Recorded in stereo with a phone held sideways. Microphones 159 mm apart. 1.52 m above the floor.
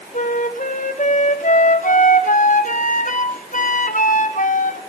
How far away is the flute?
About 0.8 m.